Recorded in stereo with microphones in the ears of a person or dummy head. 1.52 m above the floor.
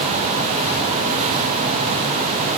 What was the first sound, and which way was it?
Only background noise.